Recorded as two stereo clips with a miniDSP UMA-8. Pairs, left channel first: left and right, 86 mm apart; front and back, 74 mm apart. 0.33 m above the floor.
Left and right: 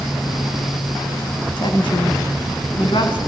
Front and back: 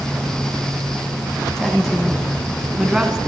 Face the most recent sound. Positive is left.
turn(degrees=100)